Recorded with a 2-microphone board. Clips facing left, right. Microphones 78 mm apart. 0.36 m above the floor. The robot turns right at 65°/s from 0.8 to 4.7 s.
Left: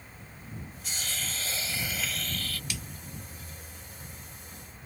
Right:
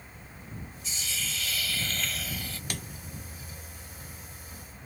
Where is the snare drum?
50° right (ahead or behind); by 2.8 s 55° right (ahead or behind).